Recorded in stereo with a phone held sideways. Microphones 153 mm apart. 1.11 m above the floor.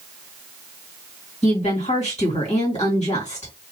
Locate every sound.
1.4 s a woman speaking: 45° left (ahead or behind), 1.9 m